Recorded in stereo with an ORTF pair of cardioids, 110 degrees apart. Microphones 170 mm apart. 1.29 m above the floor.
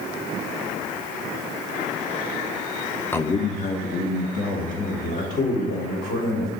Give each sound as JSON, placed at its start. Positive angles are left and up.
{"t": 3.1, "sound": "a man speaking", "azimuth_deg": 10, "distance_m": 0.6}